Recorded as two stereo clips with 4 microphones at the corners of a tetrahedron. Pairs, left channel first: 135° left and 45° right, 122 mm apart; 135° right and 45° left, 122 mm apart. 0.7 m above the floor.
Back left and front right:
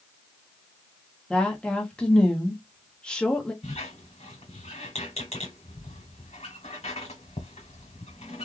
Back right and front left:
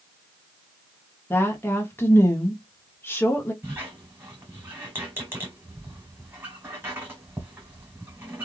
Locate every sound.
1.3 s a woman speaking: 160° right, 1.0 m
3.6 s a squeak: 115° left, 2.5 m